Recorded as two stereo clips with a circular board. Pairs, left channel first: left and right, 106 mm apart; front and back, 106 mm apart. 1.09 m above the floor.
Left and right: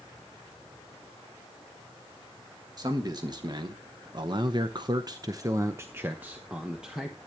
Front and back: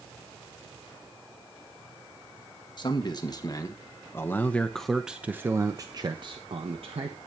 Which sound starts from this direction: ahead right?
A man speaking, at 2.8 s.